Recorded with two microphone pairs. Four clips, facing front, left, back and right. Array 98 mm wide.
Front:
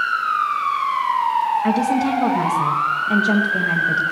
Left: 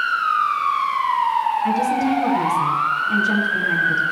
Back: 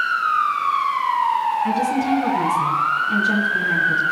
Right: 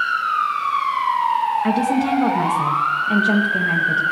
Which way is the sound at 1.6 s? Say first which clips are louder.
Even, front 1 dB; 40° right.